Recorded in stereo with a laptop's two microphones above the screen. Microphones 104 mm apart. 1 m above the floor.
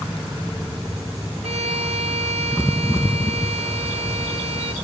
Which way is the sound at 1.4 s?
90° right.